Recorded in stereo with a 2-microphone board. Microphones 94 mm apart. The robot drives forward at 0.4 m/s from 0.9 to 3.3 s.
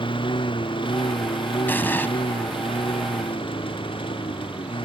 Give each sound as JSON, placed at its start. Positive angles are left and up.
{"t": 0.0, "sound": "a lawn mower", "side_deg": 65}
{"t": 1.7, "sound": "an explosion", "side_deg": 20}